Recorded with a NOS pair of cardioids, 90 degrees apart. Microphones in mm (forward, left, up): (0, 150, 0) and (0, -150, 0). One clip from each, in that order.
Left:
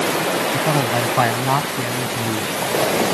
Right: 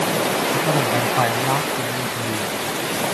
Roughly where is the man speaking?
Ahead.